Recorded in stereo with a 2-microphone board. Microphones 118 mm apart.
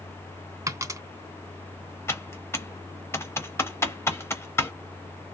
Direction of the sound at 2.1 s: 20° left (ahead or behind).